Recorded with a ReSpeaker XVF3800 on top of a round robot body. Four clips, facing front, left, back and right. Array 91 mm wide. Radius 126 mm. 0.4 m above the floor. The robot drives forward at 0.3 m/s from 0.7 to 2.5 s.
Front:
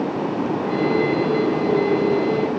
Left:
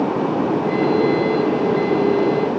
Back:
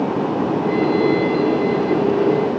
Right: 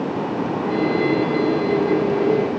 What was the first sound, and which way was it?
Only background noise.